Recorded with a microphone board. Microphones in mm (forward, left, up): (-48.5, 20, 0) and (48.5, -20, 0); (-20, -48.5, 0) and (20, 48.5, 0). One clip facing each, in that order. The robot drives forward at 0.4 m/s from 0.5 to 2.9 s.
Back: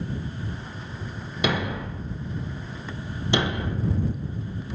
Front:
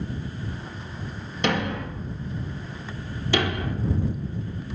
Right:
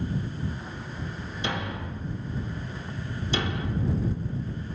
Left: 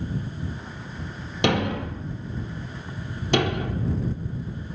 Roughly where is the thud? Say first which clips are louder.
Front 1 dB, left 10 dB; left.